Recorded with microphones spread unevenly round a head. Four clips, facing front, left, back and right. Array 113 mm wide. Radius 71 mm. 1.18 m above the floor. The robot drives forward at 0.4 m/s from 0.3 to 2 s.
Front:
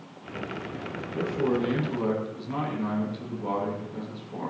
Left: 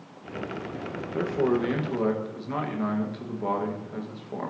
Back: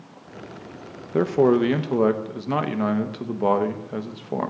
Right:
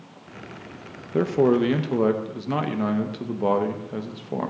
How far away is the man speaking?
About 1.1 m.